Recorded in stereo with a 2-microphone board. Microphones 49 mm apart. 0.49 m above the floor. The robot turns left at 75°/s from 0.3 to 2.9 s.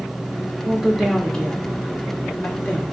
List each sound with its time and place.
0.6 s a woman speaking: 20° right (ahead or behind), 1.0 m; by 2.8 s 25° left (ahead or behind), 1.0 m